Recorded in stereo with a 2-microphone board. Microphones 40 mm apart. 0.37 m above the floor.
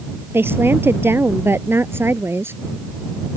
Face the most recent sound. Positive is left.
turn(degrees=-75)  # may be behind; listen again after turning